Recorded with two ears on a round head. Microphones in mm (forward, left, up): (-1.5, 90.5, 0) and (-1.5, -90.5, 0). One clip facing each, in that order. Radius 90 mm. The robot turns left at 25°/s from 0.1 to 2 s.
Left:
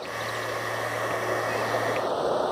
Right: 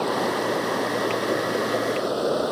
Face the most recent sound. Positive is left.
turn(degrees=-150)